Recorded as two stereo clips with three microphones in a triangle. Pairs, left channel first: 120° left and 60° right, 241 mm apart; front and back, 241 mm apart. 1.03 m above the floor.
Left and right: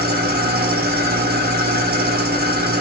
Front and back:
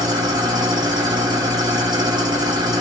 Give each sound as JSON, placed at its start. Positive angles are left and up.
{"t": 0.0, "sound": "an engine running", "azimuth_deg": -105, "distance_m": 1.3}